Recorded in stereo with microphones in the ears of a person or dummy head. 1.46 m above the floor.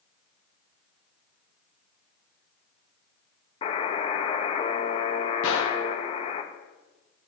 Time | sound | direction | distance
3.6 | a buzzer | 35° left (ahead or behind) | 0.9 m
5.4 | a gunshot | 70° left (ahead or behind) | 1.2 m